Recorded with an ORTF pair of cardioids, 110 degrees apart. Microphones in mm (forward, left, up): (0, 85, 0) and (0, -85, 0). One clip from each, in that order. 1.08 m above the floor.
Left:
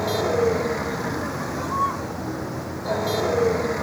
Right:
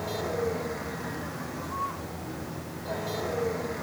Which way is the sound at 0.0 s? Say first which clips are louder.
Left 9 dB; 55° left.